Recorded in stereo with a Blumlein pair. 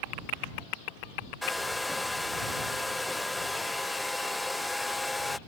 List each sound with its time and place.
1.4 s a hair dryer: 5° left